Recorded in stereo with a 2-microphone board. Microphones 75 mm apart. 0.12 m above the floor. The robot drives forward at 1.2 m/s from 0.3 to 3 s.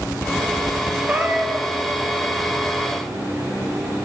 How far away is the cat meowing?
About 3 m.